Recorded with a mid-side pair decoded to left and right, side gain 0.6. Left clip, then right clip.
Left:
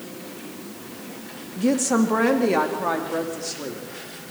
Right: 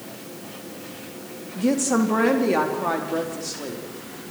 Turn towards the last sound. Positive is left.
turn(degrees=5)